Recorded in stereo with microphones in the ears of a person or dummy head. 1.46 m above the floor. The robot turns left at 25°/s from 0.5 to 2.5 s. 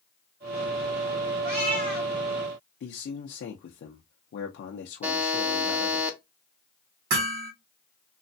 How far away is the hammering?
About 1.3 m.